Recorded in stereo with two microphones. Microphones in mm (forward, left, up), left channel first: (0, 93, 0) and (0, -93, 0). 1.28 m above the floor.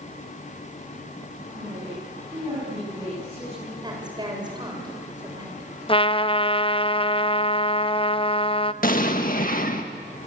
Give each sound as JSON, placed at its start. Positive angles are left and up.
{"t": 1.5, "sound": "a woman speaking", "side_deg": -25, "distance_m": 10.0}
{"t": 3.8, "sound": "a woman speaking", "side_deg": -25, "distance_m": 6.5}
{"t": 5.9, "sound": "a trumpet", "side_deg": 30, "distance_m": 0.6}
{"t": 8.8, "sound": "an explosion", "side_deg": 50, "distance_m": 1.7}